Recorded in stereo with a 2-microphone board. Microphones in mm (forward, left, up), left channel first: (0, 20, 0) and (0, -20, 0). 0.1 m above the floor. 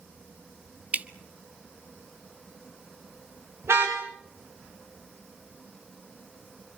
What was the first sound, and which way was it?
Dripping, 35° right (ahead or behind).